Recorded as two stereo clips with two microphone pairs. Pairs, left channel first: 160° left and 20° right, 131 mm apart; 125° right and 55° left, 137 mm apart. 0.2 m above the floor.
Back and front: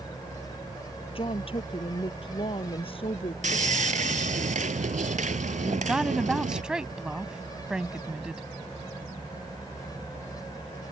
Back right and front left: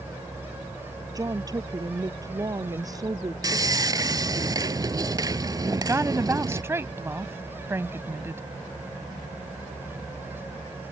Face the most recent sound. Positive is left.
turn(degrees=55)